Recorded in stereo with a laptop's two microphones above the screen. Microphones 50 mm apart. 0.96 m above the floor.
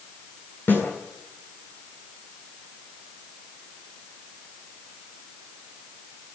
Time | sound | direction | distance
0.7 | a snare drum | 45° left (ahead or behind) | 8 m